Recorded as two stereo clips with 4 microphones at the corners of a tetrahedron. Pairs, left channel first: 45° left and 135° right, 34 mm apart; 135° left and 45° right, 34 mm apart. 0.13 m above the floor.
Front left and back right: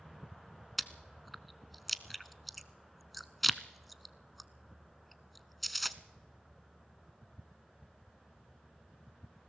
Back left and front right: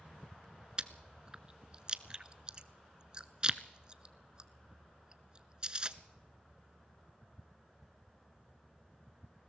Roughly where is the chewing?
Ahead right.